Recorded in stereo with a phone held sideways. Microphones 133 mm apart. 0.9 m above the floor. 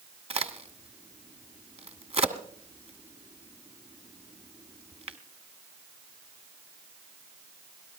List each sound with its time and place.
0.3 s a crack: 55° right (ahead or behind), 1.4 m